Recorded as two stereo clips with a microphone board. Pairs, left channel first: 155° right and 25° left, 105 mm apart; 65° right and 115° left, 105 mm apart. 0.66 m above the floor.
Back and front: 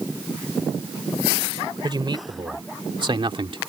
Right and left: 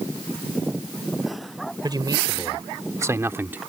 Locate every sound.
1.8 s a man speaking: 65° left; by 3.6 s 45° left